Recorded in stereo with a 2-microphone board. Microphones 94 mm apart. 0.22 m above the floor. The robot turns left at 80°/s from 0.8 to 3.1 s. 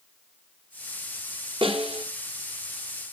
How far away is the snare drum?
About 1.4 m.